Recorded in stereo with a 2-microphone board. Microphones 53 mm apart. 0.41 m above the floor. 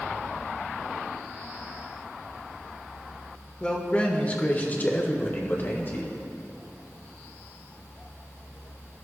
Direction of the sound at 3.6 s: 20° left (ahead or behind).